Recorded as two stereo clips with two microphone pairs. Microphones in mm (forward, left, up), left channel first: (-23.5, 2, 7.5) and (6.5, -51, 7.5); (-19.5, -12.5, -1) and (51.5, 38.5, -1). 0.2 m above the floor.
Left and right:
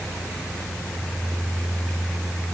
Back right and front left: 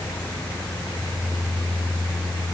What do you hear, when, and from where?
Only background noise.